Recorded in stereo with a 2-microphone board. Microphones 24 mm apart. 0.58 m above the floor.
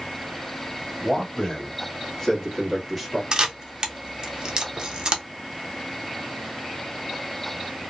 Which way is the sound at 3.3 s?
35° right (ahead or behind).